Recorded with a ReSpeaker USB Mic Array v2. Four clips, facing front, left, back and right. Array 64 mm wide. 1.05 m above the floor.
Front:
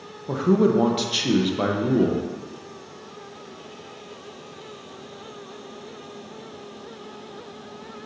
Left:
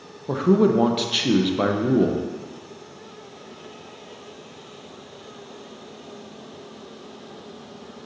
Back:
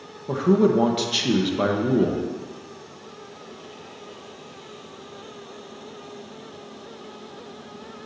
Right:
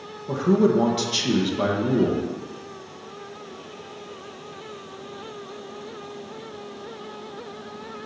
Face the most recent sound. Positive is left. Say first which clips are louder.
# left 1 dB, back 1 dB
turn(degrees=95)